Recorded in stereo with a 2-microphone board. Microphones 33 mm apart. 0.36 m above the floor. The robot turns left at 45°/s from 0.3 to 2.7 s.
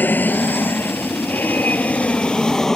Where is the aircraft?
65° left (ahead or behind); by 2.8 s 15° left (ahead or behind).